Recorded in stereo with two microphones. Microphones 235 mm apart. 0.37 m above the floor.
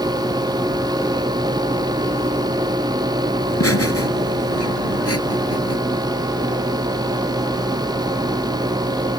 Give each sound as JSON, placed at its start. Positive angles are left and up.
{"t": 3.5, "sound": "laughter", "side_deg": 75}